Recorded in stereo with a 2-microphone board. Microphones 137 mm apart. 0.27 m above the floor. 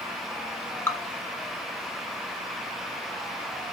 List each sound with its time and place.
0.9 s dripping: 20° left (ahead or behind), 0.7 m